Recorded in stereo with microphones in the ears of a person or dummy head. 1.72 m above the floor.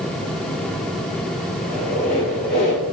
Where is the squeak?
35° left (ahead or behind), 4.5 m.